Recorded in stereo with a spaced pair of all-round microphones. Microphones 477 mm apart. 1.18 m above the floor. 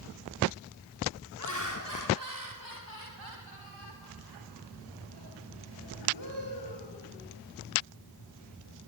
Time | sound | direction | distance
1.4 | laughter | 35° right (ahead or behind) | 3 m